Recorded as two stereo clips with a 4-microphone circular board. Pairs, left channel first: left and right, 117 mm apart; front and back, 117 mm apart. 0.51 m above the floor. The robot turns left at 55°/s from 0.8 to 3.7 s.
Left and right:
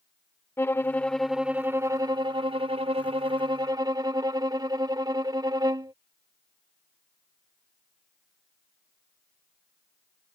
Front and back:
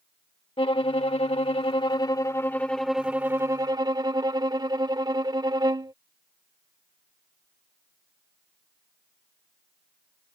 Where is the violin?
25° left; by 5.9 s 135° right.